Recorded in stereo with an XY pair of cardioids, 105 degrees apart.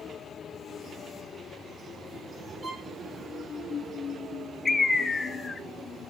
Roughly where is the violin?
Ahead right.